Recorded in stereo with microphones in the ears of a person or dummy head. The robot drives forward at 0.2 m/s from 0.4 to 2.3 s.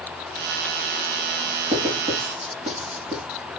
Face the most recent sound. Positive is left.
turn(degrees=-25)  # may be behind; listen again after turning